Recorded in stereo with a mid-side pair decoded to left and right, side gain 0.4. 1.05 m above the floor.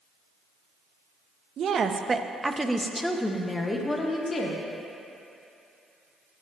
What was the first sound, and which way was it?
A woman speaking, 65° right.